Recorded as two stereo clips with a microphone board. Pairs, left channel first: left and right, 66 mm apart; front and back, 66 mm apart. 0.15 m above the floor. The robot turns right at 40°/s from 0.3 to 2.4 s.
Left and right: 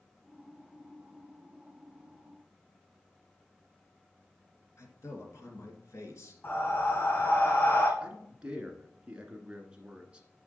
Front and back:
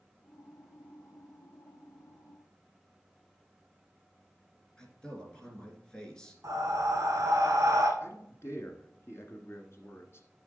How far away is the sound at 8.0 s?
About 1.6 m.